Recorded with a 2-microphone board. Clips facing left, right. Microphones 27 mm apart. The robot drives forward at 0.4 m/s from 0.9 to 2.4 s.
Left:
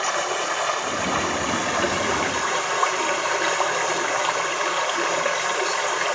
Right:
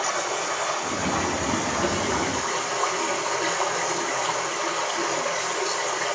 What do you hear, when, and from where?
0.0 s running water: 50° left (ahead or behind), 2.5 m; by 6.2 s 60° left (ahead or behind), 2.5 m